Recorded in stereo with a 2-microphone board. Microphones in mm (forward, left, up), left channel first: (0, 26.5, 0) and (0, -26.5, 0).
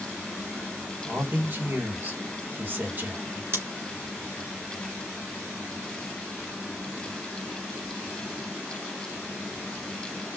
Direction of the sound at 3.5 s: 50° right (ahead or behind).